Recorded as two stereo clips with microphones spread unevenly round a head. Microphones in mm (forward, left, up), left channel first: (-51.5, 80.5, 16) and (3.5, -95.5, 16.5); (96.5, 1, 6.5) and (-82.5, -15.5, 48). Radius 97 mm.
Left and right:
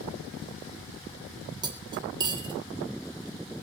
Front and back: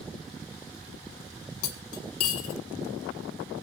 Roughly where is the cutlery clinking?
Ahead.